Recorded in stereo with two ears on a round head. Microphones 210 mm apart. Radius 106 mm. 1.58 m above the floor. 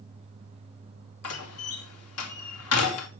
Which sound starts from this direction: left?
A door slam, at 1.2 s.